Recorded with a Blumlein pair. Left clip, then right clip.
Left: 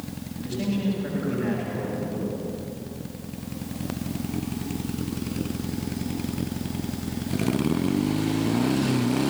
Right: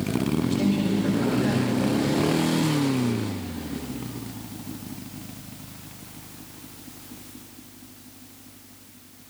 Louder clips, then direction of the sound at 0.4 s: Right 5 dB; 15° right.